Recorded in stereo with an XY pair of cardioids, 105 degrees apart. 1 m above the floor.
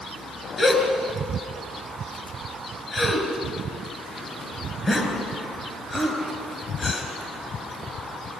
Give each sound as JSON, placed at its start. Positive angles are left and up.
{"t": 0.6, "sound": "a gasp", "azimuth_deg": 25, "distance_m": 5.0}